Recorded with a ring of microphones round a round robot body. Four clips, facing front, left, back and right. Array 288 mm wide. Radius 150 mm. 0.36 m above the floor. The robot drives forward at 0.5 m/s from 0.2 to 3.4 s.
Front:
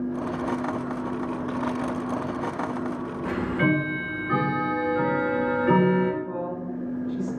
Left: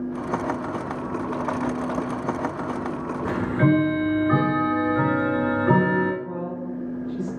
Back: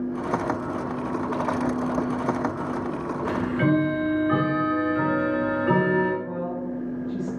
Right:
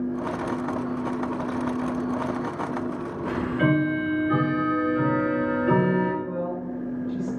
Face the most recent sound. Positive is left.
turn(degrees=155)